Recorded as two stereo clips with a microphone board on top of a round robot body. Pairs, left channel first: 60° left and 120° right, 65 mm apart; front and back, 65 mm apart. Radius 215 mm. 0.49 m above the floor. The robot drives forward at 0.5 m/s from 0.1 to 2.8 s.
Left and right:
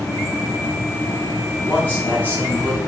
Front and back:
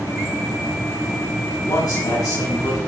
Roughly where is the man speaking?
Ahead.